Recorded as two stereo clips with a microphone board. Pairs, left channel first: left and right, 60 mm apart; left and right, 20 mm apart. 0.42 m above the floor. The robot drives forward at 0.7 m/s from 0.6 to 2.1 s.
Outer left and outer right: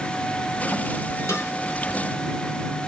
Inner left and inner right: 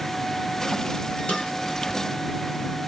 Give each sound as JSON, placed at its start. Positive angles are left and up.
{"t": 1.3, "sound": "a snare drum", "side_deg": 55, "distance_m": 1.7}